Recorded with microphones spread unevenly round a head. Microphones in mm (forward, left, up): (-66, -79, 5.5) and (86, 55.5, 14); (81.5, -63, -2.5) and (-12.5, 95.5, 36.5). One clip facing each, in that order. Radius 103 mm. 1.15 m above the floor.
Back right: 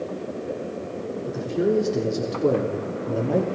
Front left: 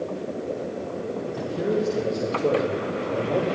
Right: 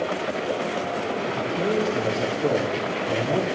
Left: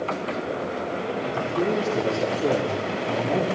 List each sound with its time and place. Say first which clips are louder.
1.3 s a man speaking: back right 5 dB, left 2 dB; straight behind, 4 m; by 3.5 s 155° right, 2.5 m